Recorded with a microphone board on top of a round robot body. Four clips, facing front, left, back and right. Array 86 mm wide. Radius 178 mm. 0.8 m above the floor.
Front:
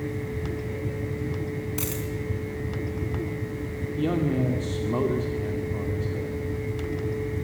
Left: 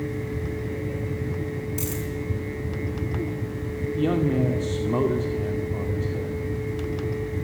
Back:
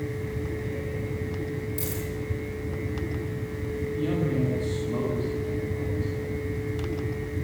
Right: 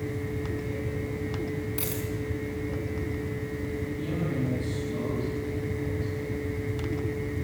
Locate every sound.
1.8 s a dropped coin: 15° right, 4.5 m
4.0 s a man speaking: 60° left, 2.5 m